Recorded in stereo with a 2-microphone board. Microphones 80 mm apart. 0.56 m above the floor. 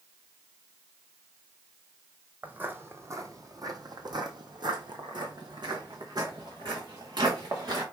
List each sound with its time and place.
2.4 s footsteps: 20° right (ahead or behind), 1.0 m; by 7.8 s 60° right (ahead or behind), 2.5 m